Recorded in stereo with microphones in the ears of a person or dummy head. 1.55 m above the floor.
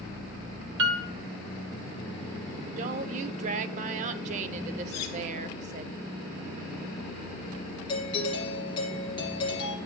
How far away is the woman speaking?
About 0.6 m.